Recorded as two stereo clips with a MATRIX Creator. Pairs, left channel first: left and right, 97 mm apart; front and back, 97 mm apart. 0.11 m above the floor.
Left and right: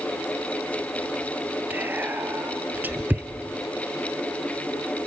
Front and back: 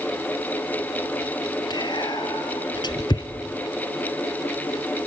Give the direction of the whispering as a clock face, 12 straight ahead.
1 o'clock.